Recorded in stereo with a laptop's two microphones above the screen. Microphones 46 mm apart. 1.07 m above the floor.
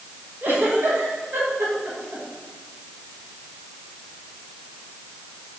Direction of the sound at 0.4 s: 45° right (ahead or behind).